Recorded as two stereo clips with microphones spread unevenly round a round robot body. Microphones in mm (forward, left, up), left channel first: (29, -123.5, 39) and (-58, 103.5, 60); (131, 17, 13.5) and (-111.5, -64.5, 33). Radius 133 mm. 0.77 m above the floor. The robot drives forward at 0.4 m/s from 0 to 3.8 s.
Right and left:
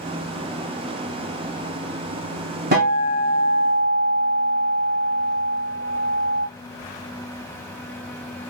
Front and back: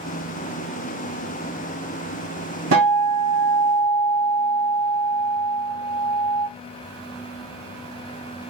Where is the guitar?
160° left, 2.0 m; by 6.5 s 165° left, 2.5 m.